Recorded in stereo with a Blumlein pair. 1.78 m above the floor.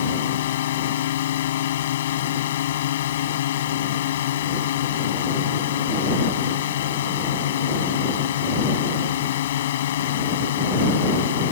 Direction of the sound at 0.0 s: 60° left.